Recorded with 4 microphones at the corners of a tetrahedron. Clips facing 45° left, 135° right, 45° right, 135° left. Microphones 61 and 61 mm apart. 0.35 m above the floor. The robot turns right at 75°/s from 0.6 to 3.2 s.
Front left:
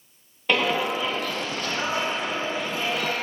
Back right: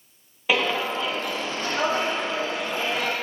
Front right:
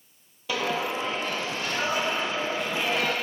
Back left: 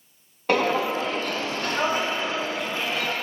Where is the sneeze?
No sneeze in this recording.